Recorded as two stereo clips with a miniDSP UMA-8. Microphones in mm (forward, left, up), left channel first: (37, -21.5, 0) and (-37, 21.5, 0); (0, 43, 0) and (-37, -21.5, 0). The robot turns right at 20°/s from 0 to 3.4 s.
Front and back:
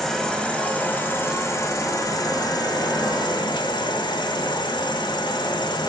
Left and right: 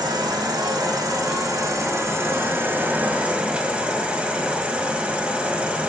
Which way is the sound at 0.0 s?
115° right.